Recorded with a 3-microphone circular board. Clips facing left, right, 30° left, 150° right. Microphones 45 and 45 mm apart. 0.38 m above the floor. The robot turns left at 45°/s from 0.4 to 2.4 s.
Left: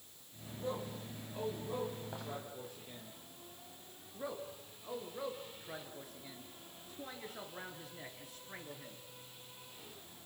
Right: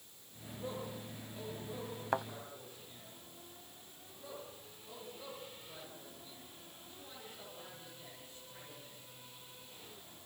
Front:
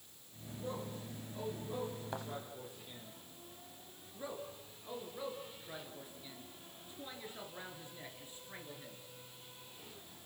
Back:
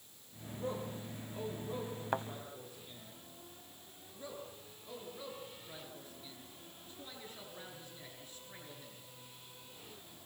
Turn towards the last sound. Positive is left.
turn(degrees=100)